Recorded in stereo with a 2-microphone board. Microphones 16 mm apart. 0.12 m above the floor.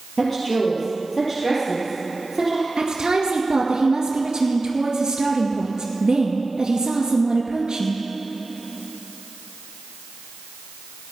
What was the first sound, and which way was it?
A woman speaking, 20° left (ahead or behind).